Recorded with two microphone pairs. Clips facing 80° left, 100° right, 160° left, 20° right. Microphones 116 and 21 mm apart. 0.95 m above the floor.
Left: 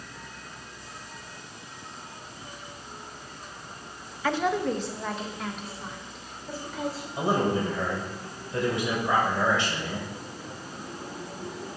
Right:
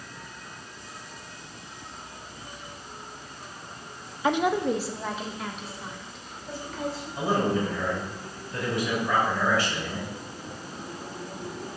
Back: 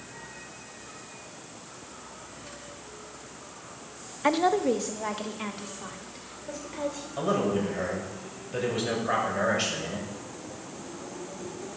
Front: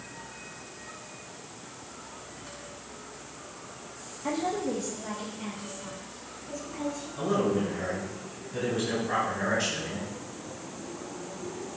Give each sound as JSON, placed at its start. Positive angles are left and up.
{"t": 4.2, "sound": "a woman speaking", "azimuth_deg": -175, "distance_m": 0.7}
{"t": 7.2, "sound": "a man speaking", "azimuth_deg": 145, "distance_m": 5.0}